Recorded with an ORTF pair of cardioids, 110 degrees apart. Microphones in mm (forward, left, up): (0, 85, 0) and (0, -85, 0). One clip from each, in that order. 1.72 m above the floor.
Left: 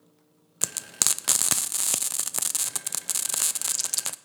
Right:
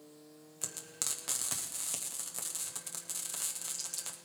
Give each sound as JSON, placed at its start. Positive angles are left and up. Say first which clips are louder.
{"t": 0.6, "sound": "frying", "louder": "left 12 dB", "azimuth_deg": 55, "distance_m": 0.5}